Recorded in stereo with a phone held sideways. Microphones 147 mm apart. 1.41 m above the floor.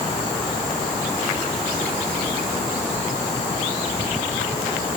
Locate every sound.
Only background noise.